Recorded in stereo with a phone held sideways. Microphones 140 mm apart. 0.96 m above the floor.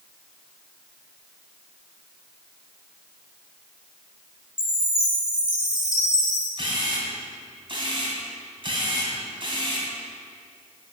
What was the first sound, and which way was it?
A chime, 5° right (ahead or behind).